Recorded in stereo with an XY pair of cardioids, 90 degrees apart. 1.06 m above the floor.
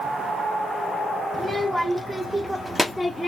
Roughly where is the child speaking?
Ahead.